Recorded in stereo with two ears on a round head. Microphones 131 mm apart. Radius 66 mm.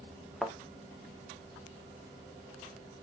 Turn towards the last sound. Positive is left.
turn(degrees=0)  # may be behind; listen again after turning